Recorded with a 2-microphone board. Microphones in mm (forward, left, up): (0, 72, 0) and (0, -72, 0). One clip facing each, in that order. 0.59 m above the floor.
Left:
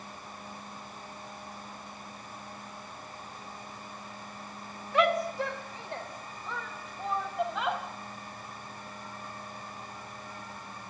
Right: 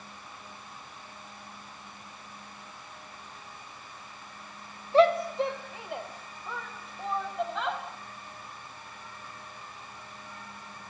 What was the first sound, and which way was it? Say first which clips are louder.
A shout: right 5 dB; 30° right (ahead or behind).